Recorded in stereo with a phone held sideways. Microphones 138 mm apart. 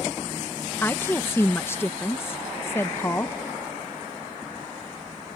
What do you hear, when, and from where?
0.8 s a woman speaking: 15° left (ahead or behind)